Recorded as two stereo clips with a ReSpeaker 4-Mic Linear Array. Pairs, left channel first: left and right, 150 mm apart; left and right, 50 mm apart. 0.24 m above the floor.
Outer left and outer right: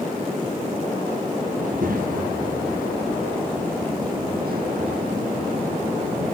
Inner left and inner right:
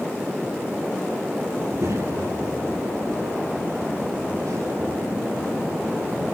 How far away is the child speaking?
About 4 m.